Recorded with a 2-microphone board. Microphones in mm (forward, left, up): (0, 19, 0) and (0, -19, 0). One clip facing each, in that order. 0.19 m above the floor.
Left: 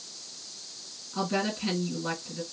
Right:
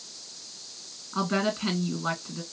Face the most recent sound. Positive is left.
turn(degrees=-40)  # may be behind; listen again after turning